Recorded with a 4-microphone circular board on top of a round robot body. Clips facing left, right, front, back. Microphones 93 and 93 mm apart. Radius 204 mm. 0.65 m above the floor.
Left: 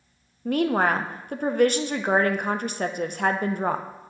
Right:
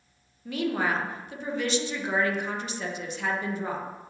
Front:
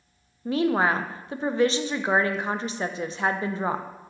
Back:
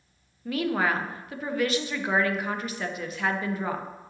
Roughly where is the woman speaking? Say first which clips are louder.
Left 6 dB, front 4 dB; ahead left.